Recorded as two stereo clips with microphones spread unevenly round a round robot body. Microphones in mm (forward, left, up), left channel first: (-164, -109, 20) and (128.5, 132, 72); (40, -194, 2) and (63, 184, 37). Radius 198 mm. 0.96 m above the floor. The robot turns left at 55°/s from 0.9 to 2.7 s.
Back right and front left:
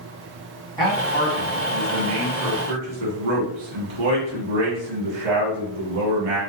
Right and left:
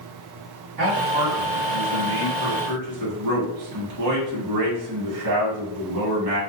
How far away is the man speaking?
About 1.5 m.